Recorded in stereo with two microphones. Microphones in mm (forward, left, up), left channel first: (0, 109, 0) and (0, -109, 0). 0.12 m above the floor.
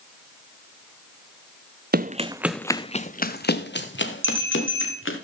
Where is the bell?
65° right (ahead or behind), 7 m.